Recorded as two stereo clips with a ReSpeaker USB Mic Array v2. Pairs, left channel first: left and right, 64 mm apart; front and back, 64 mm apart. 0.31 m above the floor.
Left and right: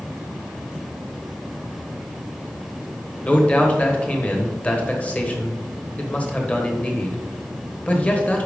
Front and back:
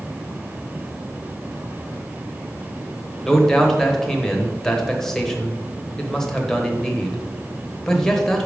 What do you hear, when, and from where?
3.2 s a man speaking: 70° left, 1.1 m